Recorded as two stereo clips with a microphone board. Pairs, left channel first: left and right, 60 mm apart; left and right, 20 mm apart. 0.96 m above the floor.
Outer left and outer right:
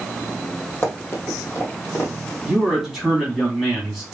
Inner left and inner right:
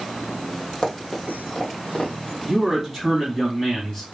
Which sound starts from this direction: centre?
A man speaking, at 2.5 s.